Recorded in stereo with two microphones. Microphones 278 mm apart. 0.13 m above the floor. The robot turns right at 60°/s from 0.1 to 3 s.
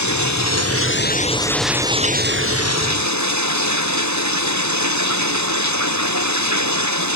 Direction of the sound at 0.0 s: 85° left.